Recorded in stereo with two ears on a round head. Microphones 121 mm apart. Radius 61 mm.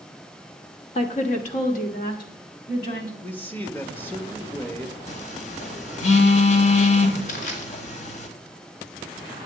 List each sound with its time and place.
0.9 s a woman speaking: 45° left (ahead or behind), 1.2 m; by 3.1 s 65° left (ahead or behind), 2.5 m
3.2 s a man speaking: 15° left (ahead or behind), 1.1 m
5.1 s a phone buzzing: 55° left (ahead or behind), 1.3 m
7.3 s crushing: 65° left (ahead or behind), 2.5 m